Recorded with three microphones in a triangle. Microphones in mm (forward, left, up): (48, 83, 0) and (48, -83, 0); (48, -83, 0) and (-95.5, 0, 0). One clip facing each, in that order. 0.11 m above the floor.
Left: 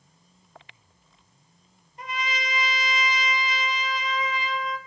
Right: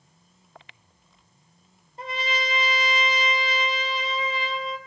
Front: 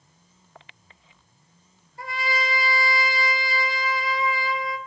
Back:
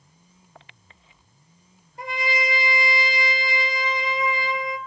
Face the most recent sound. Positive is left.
turn(degrees=-140)